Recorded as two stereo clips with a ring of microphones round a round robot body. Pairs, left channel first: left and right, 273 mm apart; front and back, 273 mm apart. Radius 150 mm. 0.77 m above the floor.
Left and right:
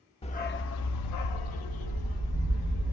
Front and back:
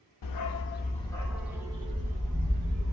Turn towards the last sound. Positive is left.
turn(degrees=120)